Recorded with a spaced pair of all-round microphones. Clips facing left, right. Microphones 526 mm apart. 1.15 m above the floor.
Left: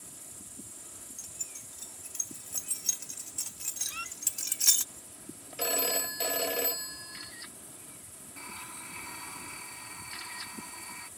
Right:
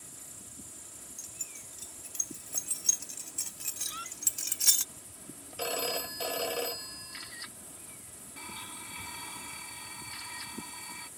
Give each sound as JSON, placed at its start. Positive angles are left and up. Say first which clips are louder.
{"t": 1.2, "sound": "keys jangling", "louder": "even", "side_deg": 10}
{"t": 3.9, "sound": "a squeak", "louder": "right 1 dB", "side_deg": 30}
{"t": 5.6, "sound": "a phone ringing", "louder": "left 1 dB", "side_deg": 45}
{"t": 8.4, "sound": "a blender", "louder": "right 1 dB", "side_deg": -55}